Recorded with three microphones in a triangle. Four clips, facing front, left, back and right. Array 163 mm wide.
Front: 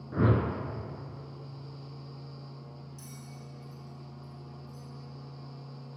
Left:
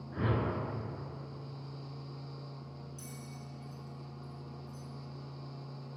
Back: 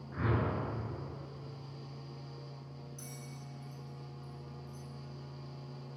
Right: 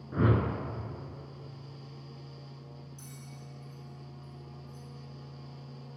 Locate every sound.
0.1 s a whoosh: 25° right, 0.5 m
3.0 s a bell: 145° right, 1.8 m